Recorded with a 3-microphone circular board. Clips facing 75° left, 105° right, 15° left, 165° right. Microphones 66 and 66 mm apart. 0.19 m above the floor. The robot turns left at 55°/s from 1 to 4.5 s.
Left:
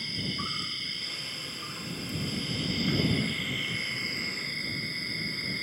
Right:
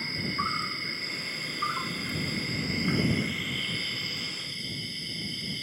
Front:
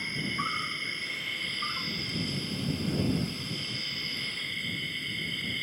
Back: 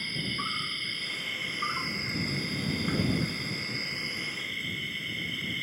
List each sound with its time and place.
0.0 s an insect: 60° right; by 5.6 s 110° left